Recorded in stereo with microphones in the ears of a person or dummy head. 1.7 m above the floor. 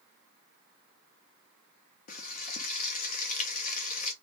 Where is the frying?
40° left (ahead or behind), 0.5 m.